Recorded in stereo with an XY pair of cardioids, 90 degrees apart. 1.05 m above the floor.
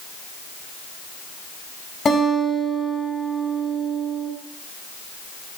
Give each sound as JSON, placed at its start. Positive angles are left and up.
{"t": 2.0, "sound": "a guitar", "azimuth_deg": 40, "distance_m": 6.0}